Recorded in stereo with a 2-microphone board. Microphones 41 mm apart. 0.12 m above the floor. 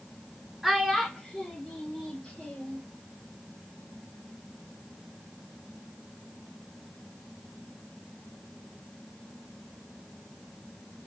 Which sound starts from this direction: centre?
A child speaking, at 0.6 s.